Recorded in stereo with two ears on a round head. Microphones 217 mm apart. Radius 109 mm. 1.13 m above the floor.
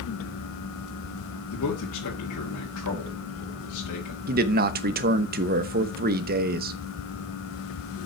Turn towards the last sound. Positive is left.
turn(degrees=-40)  # may be behind; listen again after turning